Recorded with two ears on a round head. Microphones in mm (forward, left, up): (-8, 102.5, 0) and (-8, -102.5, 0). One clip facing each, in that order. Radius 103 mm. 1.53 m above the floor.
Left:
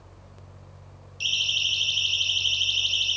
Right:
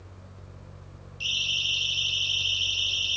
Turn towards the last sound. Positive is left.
turn(degrees=30)  # may be behind; listen again after turning